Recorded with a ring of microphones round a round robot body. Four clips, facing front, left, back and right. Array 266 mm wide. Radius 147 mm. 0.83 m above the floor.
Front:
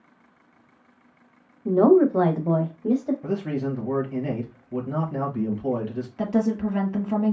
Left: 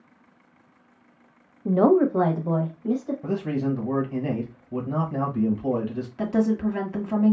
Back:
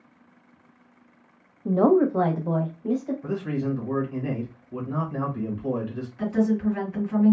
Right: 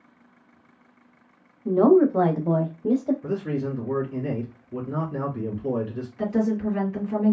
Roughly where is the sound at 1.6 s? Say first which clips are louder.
Right 2 dB, front 3 dB; left.